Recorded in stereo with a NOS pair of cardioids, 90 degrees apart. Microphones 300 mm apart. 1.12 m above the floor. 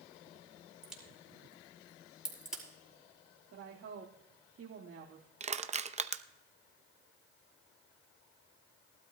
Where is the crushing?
25° right, 0.7 m.